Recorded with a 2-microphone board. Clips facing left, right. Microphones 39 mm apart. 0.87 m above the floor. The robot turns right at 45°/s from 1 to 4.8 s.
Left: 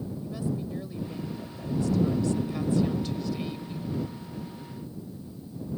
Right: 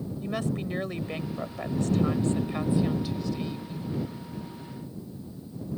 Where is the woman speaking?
100° right; by 3.9 s 30° left.